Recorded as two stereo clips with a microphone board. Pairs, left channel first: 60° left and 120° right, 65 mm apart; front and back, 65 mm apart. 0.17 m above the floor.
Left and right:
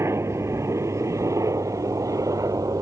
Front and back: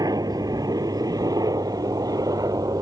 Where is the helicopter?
165° right; by 2.8 s 155° right.